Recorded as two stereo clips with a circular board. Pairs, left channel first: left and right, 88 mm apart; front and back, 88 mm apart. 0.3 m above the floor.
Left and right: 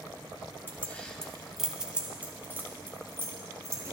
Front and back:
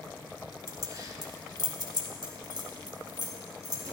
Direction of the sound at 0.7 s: 150° left.